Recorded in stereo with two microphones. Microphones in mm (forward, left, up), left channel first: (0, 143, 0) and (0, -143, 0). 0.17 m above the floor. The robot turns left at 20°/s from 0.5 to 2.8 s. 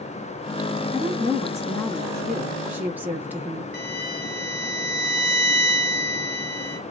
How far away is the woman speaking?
About 1.8 m.